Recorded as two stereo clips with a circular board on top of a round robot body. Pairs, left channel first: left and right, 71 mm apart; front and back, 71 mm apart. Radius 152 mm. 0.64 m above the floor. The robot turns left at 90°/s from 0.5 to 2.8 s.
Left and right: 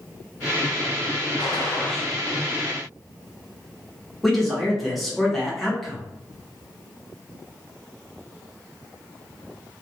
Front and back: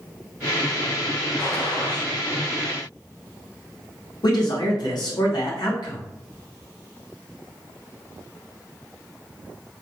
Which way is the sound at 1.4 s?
60° left.